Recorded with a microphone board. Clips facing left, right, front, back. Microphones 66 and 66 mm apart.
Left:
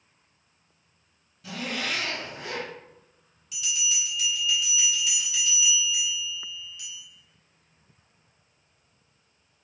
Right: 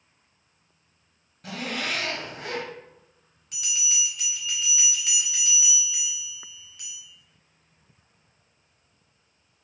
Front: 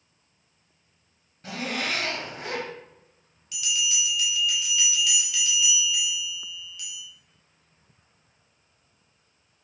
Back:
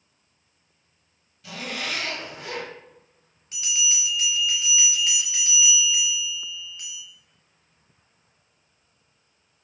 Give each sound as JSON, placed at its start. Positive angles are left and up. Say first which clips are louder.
{"t": 1.4, "sound": "a zipper", "louder": "right 1 dB, front 2 dB", "azimuth_deg": -55, "distance_m": 0.7}
{"t": 3.5, "sound": "a bell", "louder": "left 2 dB, front 1 dB", "azimuth_deg": -125, "distance_m": 0.7}